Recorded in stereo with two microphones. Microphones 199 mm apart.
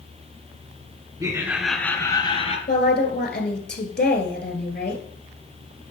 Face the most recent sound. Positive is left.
turn(degrees=55)  # may be behind; listen again after turning